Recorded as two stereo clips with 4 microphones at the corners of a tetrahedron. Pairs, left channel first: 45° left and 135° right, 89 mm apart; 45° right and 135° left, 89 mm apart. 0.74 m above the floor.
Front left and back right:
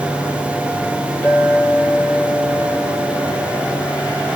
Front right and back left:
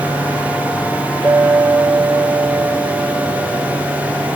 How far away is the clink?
About 6 m.